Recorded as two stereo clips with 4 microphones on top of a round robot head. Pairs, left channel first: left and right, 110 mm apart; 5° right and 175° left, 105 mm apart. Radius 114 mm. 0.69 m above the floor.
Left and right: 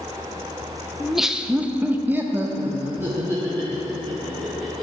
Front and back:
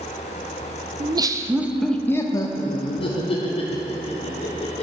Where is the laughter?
Straight behind, 0.9 m; by 4.8 s 15° right, 2.5 m.